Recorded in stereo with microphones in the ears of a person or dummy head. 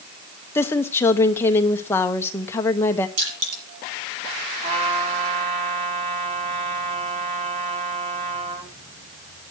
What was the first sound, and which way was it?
A woman speaking, 20° left (ahead or behind).